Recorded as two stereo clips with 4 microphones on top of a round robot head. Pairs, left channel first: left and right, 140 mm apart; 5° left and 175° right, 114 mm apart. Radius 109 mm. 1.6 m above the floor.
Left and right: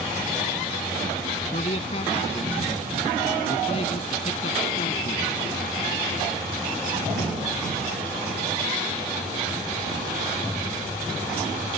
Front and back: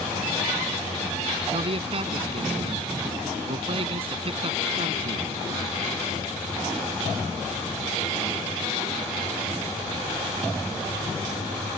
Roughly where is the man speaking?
Behind left.